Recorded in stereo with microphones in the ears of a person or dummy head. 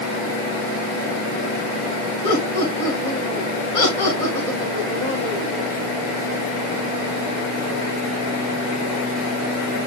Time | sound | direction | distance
2.2 | laughter | 35° left (ahead or behind) | 5 m